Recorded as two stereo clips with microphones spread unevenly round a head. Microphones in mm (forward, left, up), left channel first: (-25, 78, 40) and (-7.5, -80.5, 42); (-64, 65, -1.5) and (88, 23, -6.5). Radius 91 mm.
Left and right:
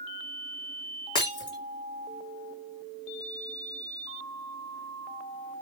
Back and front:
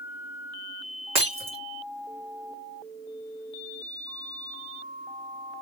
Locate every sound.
1.1 s breaking glass: 35° left, 3.5 m